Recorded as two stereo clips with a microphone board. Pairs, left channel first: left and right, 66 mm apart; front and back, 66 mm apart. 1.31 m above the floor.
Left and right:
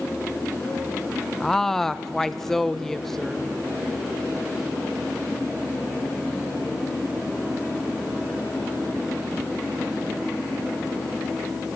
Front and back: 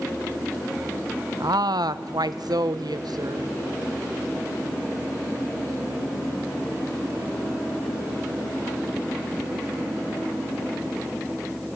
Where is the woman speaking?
175° left, 0.9 m.